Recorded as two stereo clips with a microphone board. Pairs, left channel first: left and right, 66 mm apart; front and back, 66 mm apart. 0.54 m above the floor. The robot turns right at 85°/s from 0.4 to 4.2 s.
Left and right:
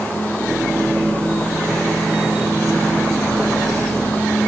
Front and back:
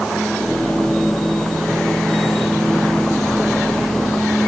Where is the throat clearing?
I don't hear throat clearing.